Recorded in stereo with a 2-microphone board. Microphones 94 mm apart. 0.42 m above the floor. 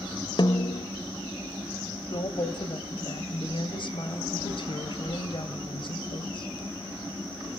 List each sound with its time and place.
0.4 s a snare drum: 55° left (ahead or behind), 0.8 m
2.1 s a woman speaking: 55° left (ahead or behind), 2 m